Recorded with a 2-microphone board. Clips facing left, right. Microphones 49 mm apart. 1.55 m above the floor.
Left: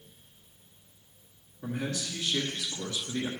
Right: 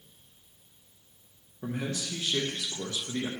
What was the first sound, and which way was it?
A man speaking, 35° right (ahead or behind).